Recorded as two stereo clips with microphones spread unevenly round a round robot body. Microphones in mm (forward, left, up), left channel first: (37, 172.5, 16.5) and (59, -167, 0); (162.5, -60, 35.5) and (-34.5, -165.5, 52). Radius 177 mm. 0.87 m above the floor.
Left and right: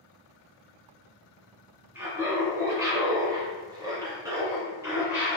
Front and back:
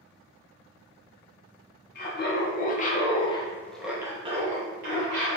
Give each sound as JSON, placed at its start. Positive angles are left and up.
{"t": 1.9, "sound": "laughter", "azimuth_deg": -5, "distance_m": 1.3}